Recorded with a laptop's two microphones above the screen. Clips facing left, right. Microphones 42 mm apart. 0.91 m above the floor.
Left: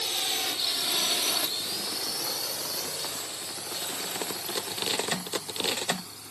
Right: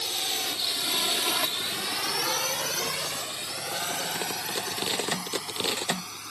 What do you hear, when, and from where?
0.0 s a drone: 15° left (ahead or behind); by 6.3 s 75° right (ahead or behind)